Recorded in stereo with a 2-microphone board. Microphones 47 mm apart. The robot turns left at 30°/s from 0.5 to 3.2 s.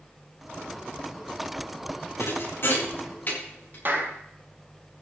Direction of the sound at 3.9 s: 50° right (ahead or behind).